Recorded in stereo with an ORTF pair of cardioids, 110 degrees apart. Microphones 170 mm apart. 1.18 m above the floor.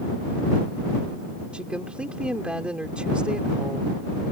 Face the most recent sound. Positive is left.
turn(degrees=-5)